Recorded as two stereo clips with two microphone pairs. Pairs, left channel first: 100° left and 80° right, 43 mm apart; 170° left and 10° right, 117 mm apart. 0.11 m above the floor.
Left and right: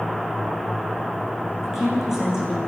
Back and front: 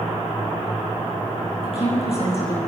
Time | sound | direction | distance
1.6 | a woman speaking | 155° right | 10 m